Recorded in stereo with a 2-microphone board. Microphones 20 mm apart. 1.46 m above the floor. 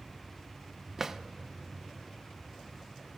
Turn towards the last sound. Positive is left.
turn(degrees=-20)  # may be behind; listen again after turning